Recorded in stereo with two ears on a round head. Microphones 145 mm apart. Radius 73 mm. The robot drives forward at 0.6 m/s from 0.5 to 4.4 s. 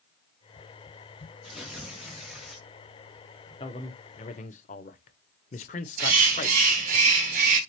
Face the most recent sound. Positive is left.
turn(degrees=-55)  # may be behind; listen again after turning